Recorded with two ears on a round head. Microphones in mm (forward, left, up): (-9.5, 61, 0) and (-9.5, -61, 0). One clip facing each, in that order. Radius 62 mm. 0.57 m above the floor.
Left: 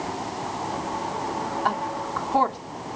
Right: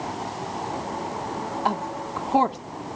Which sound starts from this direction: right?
A woman speaking, at 1.6 s.